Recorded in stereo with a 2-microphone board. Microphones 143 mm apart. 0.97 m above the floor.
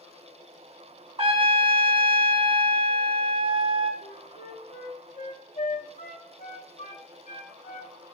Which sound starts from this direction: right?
A trumpet, at 1.2 s.